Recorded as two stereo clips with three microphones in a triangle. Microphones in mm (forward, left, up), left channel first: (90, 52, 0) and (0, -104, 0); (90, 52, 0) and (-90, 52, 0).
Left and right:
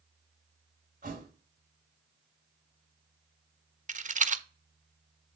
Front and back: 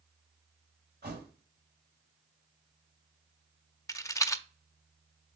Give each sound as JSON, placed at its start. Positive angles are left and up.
{"t": 1.0, "sound": "a thud", "azimuth_deg": -155, "distance_m": 1.7}
{"t": 3.9, "sound": "a rattle", "azimuth_deg": -70, "distance_m": 0.5}